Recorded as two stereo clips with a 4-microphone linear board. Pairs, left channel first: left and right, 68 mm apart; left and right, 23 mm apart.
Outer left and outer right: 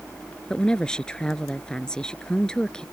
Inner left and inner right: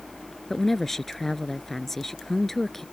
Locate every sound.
0.5 s a woman speaking: 10° left (ahead or behind)